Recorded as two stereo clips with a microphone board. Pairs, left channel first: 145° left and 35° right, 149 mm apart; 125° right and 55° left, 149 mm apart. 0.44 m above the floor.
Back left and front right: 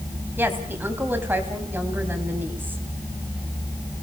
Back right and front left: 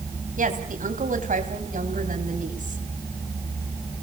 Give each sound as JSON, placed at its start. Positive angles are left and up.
{"t": 0.4, "sound": "a woman speaking", "azimuth_deg": 40, "distance_m": 3.0}